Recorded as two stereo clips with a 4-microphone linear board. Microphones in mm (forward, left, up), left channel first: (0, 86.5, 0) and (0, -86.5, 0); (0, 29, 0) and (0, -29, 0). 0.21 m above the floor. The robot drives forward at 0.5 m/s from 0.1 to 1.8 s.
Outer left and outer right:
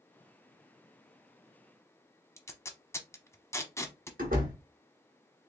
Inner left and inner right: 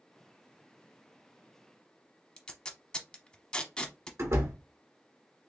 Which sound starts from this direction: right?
A door slam, at 4.2 s.